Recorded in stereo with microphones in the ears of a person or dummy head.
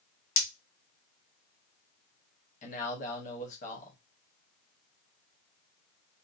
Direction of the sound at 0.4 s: 55° left (ahead or behind).